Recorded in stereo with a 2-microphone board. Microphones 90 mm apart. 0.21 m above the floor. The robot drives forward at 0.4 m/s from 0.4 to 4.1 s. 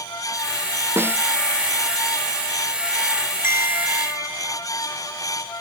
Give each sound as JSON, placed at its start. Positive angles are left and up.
{"t": 1.0, "sound": "a snare drum", "side_deg": -25}
{"t": 3.4, "sound": "a bell", "side_deg": -25}